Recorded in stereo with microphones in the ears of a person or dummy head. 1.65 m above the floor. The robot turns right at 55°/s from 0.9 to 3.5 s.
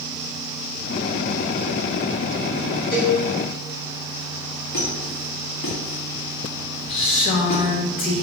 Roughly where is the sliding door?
I don't hear a sliding door.